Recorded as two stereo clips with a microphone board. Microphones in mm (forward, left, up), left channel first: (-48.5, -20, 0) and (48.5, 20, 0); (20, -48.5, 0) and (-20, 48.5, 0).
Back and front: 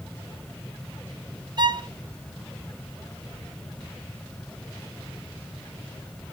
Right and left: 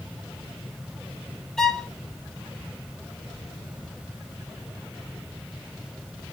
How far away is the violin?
About 0.8 m.